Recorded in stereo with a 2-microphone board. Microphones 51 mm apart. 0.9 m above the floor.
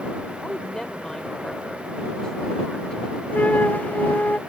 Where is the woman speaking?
15° left (ahead or behind).